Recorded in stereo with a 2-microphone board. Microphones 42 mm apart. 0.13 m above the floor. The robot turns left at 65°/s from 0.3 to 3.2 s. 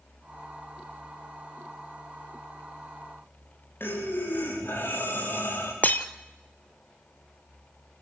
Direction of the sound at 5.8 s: 45° left (ahead or behind).